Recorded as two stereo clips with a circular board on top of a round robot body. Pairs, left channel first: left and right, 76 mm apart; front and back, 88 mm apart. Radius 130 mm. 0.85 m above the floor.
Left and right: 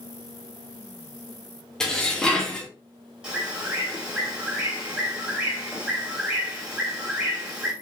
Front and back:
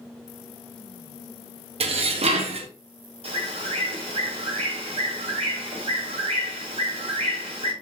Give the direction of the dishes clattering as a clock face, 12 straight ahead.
6 o'clock.